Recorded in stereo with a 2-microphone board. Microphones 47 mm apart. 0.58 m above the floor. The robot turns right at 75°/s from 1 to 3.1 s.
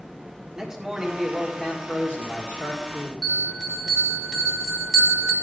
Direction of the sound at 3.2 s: 10° right (ahead or behind).